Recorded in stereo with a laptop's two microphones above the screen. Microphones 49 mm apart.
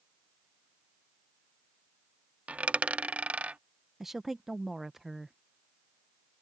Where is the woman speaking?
5° right (ahead or behind).